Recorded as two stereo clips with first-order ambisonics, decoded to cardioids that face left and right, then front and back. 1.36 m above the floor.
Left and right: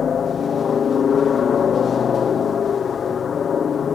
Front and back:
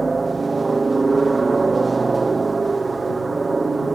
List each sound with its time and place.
0.0 s a helicopter: 120° left